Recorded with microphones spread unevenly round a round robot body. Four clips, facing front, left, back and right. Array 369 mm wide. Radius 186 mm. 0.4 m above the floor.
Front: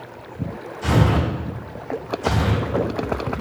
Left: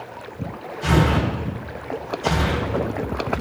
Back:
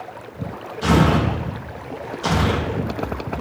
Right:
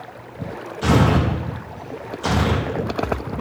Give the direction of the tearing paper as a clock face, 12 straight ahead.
4 o'clock.